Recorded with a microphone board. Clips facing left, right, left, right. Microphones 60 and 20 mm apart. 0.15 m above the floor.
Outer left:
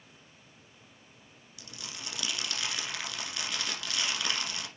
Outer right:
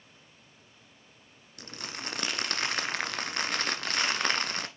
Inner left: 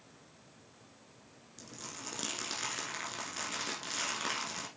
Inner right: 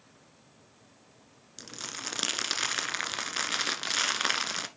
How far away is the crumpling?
About 1.2 m.